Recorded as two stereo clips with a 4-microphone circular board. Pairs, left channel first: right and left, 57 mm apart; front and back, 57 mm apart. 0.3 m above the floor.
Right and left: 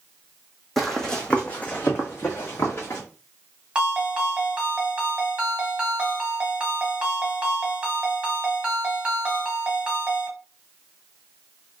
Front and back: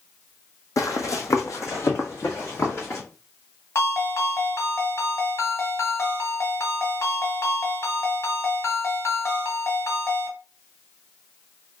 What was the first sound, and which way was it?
Running footsteps, straight ahead.